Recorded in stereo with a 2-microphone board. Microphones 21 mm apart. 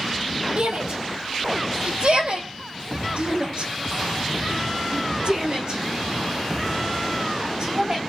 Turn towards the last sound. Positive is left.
turn(degrees=-45)  # may be behind; listen again after turning